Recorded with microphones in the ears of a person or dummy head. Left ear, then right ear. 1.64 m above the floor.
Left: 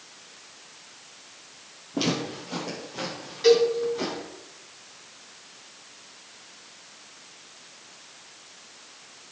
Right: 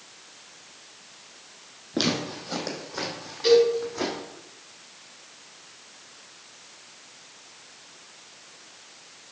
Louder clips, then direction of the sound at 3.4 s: Even; 15° left (ahead or behind).